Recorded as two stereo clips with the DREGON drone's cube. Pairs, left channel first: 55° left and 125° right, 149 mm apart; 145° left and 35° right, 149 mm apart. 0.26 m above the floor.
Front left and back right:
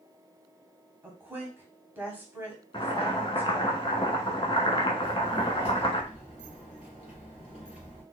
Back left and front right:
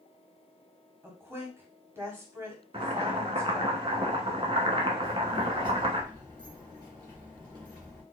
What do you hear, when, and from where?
1.0 s a woman speaking: 75° right, 1.0 m
2.7 s boiling: 10° left, 0.7 m
5.0 s a child speaking: 20° left, 1.8 m